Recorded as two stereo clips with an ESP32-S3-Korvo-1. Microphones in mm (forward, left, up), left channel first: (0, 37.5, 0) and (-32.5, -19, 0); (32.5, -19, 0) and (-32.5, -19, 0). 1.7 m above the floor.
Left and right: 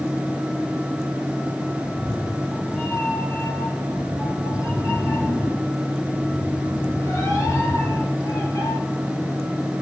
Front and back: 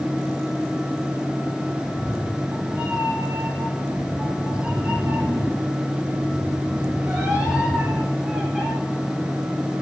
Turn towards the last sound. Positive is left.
turn(degrees=100)